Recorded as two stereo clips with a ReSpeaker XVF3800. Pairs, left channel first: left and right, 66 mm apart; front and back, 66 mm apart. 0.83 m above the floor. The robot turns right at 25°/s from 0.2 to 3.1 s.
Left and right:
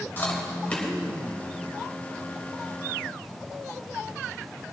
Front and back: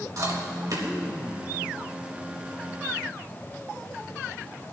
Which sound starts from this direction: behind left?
Chewing, at 0.2 s.